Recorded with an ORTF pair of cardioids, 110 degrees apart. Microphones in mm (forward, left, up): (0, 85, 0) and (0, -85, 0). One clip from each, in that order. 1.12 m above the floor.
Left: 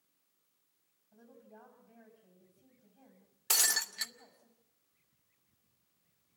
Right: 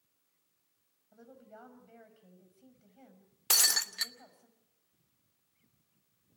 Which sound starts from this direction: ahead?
Breaking glass, at 3.5 s.